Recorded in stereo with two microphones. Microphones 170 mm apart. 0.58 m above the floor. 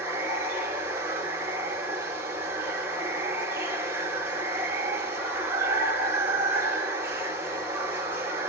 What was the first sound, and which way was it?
Running water, 15° right (ahead or behind).